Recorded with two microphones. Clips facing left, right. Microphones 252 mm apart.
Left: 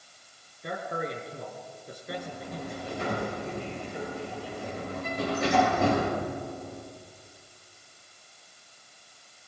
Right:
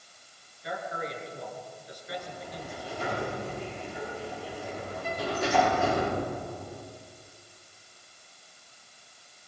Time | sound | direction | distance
0.6 | a man speaking | 55° left (ahead or behind) | 5 m
2.1 | a sliding door | 70° left (ahead or behind) | 9.5 m